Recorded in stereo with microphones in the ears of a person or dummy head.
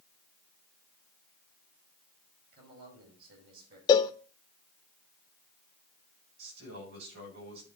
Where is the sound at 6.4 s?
60° right (ahead or behind), 6.5 m.